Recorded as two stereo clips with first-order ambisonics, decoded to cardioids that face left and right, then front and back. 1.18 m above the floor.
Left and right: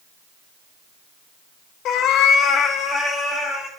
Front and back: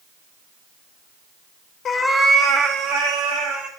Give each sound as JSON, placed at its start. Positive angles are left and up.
{"t": 1.9, "sound": "a cat meowing", "azimuth_deg": 55, "distance_m": 0.5}